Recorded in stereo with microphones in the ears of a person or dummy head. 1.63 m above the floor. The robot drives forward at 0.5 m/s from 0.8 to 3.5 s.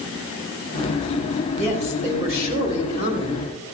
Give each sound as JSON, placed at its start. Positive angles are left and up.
{"t": 1.6, "sound": "a woman speaking", "side_deg": -35, "distance_m": 3.5}